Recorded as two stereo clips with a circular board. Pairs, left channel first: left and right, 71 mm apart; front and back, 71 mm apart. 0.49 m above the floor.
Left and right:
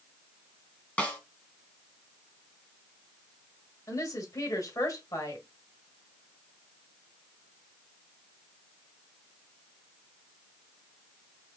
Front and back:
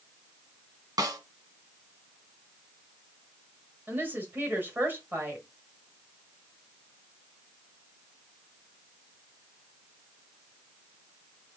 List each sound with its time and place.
1.0 s a snare drum: 160° left, 1.3 m
3.9 s a woman speaking: 120° left, 2.0 m